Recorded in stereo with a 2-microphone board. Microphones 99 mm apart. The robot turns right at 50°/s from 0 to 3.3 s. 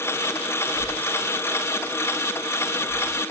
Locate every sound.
0.7 s breathing: 40° left (ahead or behind), 2 m; by 3.2 s 5° right (ahead or behind), 2 m